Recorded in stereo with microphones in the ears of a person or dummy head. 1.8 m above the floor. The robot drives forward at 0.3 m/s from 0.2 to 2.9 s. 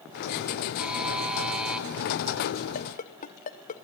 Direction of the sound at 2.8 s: 30° left (ahead or behind).